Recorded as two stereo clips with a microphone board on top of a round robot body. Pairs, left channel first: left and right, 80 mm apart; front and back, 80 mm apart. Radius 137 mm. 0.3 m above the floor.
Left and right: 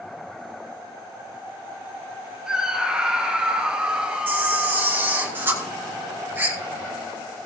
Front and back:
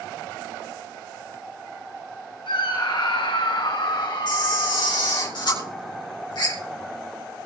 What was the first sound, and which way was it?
A scream, 10° right.